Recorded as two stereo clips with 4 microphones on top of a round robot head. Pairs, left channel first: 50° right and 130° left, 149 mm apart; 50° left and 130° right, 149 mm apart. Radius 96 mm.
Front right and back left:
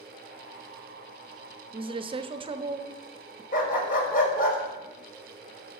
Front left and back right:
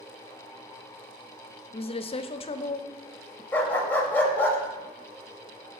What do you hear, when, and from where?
1.7 s a woman speaking: 85° left, 0.8 m
3.5 s a dog barking: 25° right, 1.4 m